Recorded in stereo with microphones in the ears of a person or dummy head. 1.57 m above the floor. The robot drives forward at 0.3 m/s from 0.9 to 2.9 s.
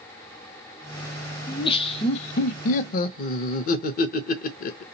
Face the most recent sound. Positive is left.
turn(degrees=50)  # may be behind; listen again after turning